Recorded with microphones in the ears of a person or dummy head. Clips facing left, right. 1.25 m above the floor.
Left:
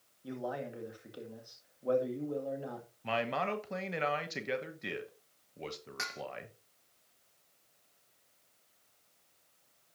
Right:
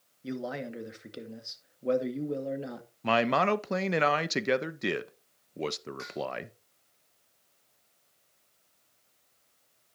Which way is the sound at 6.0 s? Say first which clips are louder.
Right 10 dB; 60° left (ahead or behind).